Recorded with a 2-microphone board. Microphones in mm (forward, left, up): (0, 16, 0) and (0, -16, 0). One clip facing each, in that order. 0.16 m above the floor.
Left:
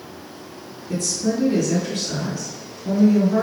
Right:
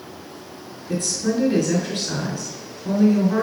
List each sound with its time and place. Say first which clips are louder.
0.9 s a woman speaking: even; 35° right (ahead or behind), 1.8 m